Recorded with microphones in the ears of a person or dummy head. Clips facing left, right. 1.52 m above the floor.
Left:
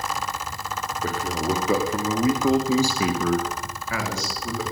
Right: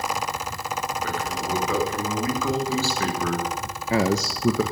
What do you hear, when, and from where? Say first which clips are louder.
1.0 s a man speaking: left 3 dB; 40° left (ahead or behind), 3.5 m; by 4.6 s 60° right (ahead or behind), 1.2 m